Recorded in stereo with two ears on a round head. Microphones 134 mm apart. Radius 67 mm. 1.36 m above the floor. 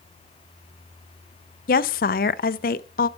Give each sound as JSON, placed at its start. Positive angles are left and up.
{"t": 1.7, "sound": "a woman speaking", "side_deg": 60, "distance_m": 0.6}